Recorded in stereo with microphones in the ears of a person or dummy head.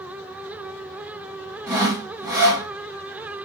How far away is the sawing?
About 2 m.